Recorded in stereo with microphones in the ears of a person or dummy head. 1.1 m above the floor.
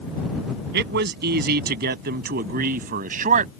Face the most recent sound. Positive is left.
turn(degrees=-45)  # may be behind; listen again after turning